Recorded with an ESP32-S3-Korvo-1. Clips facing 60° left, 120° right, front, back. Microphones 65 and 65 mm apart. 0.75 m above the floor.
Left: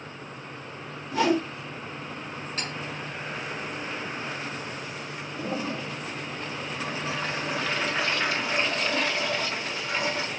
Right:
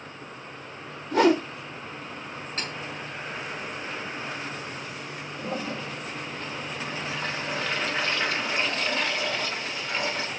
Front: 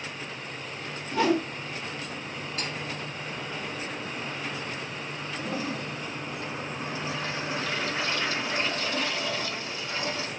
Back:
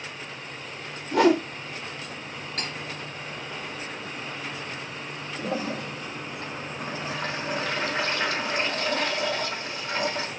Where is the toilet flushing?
145° left, 0.9 m.